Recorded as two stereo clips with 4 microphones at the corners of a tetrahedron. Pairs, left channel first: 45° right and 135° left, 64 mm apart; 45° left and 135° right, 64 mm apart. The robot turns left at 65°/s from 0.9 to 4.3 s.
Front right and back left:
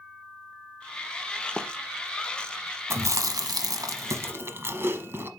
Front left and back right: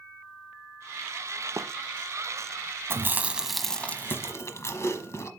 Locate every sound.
1.6 s running footsteps: 115° right, 0.9 m; by 1.7 s 125° right, 0.9 m
2.9 s chewing: straight behind, 1.0 m; by 5.3 s 85° left, 1.0 m